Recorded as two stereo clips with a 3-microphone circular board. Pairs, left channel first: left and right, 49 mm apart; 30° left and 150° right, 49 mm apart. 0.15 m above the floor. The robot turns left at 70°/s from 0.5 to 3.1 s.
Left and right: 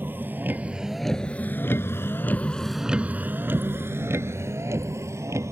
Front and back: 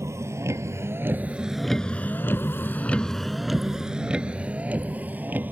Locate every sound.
0.0 s a vehicle: 135° right; by 5.5 s 95° right